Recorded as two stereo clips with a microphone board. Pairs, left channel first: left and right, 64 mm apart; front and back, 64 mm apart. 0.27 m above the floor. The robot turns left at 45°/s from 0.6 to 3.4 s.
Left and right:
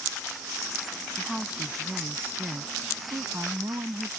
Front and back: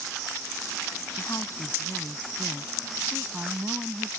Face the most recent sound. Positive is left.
turn(degrees=-110)